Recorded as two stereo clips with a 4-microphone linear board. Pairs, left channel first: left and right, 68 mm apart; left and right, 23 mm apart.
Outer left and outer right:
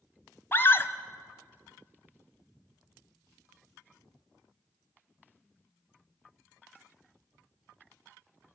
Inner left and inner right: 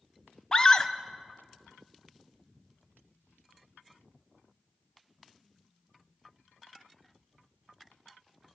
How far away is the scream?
About 1.1 m.